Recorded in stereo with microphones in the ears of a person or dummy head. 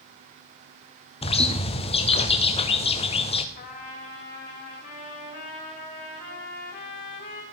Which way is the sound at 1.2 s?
30° left (ahead or behind).